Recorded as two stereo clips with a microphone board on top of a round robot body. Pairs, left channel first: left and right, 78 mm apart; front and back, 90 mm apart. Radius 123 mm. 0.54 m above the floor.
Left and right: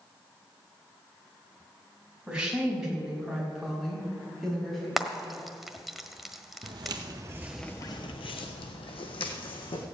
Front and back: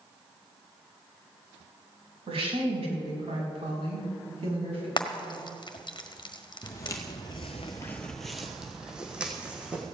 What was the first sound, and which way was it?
A woman speaking, 170° right.